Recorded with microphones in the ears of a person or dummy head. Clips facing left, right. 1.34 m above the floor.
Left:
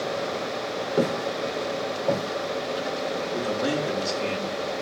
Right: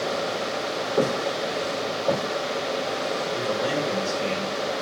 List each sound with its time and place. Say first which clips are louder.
1.0 s footsteps: right 1 dB; 25° left (ahead or behind), 5 m; by 2.2 s 20° left (ahead or behind), 5 m
3.3 s a man speaking: left 1 dB; 80° left, 3.5 m